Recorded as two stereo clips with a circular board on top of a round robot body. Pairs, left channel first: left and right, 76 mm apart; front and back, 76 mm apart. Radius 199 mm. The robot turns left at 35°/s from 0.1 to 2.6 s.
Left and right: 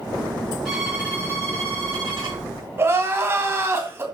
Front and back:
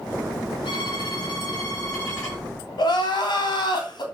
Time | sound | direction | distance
0.7 | a violin | straight ahead | 7 m
2.8 | crying | 30° right | 3 m